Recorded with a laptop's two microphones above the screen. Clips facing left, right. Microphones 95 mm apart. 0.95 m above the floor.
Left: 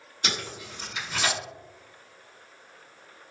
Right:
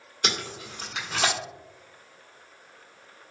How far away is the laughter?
I don't hear laughter.